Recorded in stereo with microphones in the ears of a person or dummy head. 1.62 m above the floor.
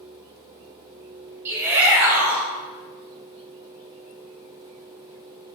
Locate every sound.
1.4 s a shout: 10° right (ahead or behind), 3.5 m